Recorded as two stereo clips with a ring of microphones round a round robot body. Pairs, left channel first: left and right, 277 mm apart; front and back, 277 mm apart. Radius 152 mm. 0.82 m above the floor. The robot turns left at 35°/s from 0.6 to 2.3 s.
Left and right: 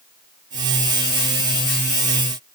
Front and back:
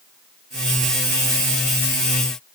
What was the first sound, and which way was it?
Only background noise.